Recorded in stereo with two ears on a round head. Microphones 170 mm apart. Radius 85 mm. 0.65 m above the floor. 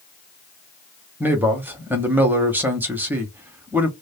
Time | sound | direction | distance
1.2 | a man speaking | 10° right (ahead or behind) | 0.7 m